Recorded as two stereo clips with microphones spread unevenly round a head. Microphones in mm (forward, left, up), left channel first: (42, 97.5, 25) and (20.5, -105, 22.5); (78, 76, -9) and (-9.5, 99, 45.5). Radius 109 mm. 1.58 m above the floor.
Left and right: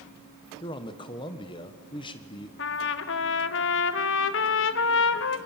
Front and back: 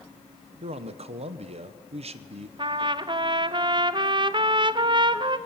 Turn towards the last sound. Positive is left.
turn(degrees=120)